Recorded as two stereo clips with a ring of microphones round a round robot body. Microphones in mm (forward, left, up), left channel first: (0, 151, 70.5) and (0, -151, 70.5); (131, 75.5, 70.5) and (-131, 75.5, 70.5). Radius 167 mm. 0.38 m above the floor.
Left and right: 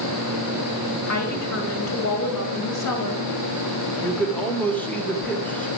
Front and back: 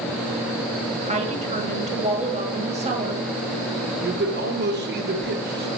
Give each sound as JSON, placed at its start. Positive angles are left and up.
{"t": 1.1, "sound": "a woman speaking", "azimuth_deg": 115, "distance_m": 2.0}
{"t": 4.0, "sound": "a man speaking", "azimuth_deg": 170, "distance_m": 1.1}